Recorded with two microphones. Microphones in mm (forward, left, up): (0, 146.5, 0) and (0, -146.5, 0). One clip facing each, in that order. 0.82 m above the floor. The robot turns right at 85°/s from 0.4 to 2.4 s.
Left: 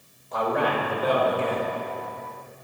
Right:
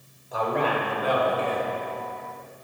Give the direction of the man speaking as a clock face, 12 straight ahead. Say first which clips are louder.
Left 1 dB; 12 o'clock.